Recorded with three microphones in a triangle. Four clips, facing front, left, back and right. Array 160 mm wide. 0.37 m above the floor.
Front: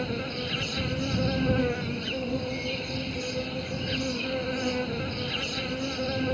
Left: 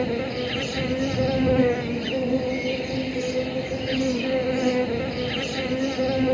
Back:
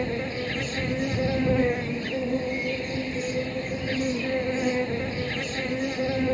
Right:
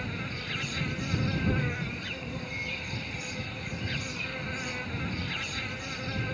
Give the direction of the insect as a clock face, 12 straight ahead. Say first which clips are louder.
Left 13 dB, back 3 dB; 8 o'clock.